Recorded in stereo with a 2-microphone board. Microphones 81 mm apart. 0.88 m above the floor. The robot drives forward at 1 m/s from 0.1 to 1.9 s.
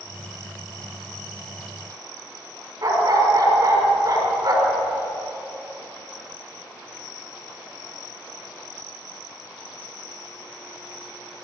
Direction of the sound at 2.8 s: 50° right (ahead or behind).